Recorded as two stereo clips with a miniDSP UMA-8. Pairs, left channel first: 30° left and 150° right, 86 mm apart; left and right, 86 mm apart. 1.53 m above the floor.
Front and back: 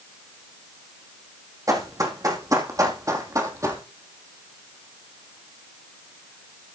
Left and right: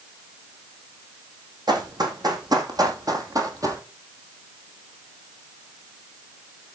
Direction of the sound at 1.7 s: 110° right.